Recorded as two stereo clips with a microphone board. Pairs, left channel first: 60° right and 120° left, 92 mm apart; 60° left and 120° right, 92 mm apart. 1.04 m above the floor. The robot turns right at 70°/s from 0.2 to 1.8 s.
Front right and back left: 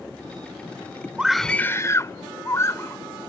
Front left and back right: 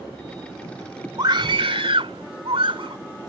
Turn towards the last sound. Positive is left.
turn(degrees=-120)